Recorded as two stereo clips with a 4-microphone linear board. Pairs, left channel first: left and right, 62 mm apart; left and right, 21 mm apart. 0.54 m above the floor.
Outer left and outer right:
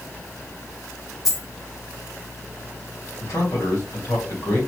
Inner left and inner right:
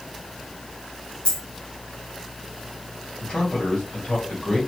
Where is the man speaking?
65° left (ahead or behind), 2.5 m.